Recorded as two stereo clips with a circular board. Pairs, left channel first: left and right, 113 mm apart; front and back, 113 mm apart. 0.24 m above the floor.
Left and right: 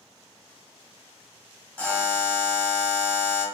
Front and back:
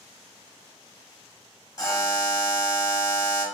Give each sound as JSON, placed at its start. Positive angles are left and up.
{"t": 1.8, "sound": "a buzzer", "azimuth_deg": 25, "distance_m": 0.9}